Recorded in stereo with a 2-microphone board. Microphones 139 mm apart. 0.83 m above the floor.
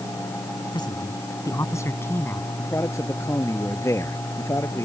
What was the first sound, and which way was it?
A man speaking, 30° left (ahead or behind).